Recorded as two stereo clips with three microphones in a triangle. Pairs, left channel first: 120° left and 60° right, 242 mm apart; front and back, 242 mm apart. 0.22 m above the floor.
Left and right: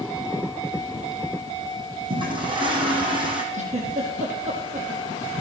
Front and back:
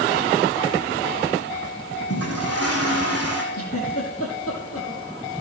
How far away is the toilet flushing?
About 4.5 m.